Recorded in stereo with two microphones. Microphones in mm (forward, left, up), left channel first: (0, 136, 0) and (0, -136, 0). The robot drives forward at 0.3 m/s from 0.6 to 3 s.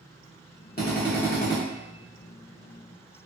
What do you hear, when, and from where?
0.8 s a drill: 35° left (ahead or behind), 1.1 m; by 1.6 s 45° left (ahead or behind), 0.9 m